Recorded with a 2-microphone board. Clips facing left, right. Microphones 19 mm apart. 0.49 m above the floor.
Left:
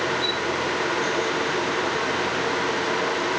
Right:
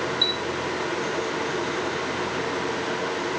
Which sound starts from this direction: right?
A chime, at 0.2 s.